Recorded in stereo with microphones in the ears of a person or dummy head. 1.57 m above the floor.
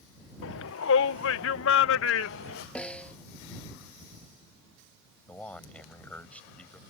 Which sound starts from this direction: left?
A shout, at 0.4 s.